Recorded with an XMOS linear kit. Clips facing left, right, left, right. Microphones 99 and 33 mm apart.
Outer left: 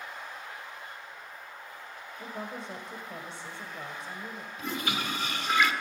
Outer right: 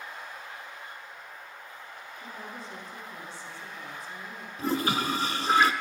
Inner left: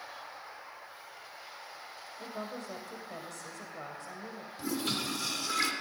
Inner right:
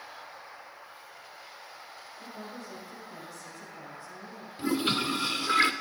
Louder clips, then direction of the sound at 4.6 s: Outer right 6 dB, inner right 6 dB; 35° right (ahead or behind).